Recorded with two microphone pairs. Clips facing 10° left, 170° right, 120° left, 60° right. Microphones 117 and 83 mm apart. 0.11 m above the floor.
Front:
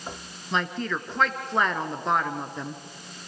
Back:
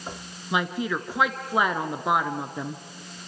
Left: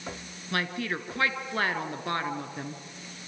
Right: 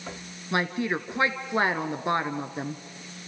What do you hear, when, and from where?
0.5 s a woman speaking: 100° right, 1.2 m